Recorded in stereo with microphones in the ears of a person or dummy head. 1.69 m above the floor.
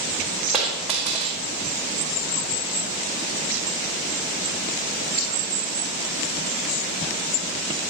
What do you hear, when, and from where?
0.5 s a dropped coin: centre (ahead or behind), 1.0 m